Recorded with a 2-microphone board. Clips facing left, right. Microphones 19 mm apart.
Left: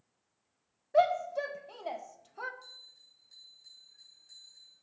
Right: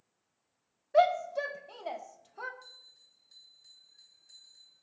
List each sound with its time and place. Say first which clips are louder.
0.9 s a shout: right 1 dB; 15° right (ahead or behind), 0.9 m; by 2.5 s 5° left (ahead or behind), 1.0 m
2.6 s a bell: left 2 dB; 5° right (ahead or behind), 7 m